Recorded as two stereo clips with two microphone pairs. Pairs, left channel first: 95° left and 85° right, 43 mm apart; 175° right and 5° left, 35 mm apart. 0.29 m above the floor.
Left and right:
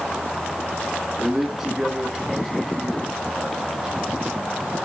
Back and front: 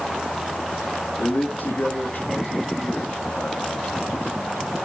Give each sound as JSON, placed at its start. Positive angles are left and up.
{"t": 1.2, "sound": "a man speaking", "azimuth_deg": -165, "distance_m": 3.5}